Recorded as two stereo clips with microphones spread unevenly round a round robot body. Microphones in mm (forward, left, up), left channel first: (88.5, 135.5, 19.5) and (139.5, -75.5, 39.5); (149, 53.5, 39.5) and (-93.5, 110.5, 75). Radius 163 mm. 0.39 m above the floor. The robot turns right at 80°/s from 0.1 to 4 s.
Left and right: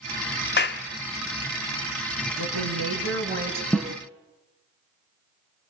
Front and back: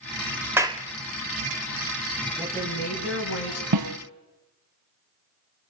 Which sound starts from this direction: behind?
A snare drum, at 3.7 s.